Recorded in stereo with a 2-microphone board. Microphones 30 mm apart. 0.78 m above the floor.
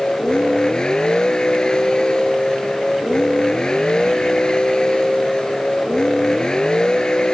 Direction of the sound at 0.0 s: 25° left (ahead or behind).